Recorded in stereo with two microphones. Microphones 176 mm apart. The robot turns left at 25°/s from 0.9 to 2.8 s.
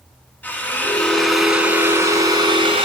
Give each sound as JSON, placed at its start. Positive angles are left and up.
{"t": 0.4, "sound": "a drill", "azimuth_deg": 10, "distance_m": 3.0}